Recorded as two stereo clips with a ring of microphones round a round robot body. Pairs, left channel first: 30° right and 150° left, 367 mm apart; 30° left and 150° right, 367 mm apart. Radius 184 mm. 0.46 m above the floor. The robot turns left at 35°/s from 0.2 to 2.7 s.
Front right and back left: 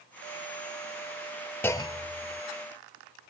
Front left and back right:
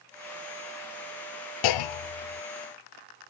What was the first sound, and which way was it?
A clunk, 55° left.